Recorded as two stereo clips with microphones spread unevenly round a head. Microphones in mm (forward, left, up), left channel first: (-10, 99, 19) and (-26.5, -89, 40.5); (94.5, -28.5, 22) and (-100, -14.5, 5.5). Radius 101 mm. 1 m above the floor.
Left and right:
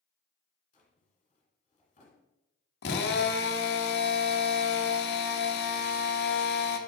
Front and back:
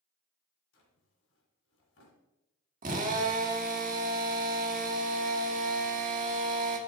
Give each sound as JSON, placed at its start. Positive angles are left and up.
{"t": 0.7, "sound": "a drawer", "azimuth_deg": 30, "distance_m": 2.5}
{"t": 2.8, "sound": "a drill", "azimuth_deg": 120, "distance_m": 1.0}